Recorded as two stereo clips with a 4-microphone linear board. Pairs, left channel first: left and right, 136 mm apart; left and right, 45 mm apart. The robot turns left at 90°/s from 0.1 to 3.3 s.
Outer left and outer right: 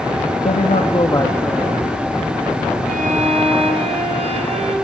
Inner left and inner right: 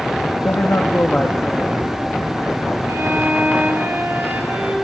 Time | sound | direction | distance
0.5 | a man speaking | 95° left | 1.8 m
2.9 | a violin | 95° right | 6 m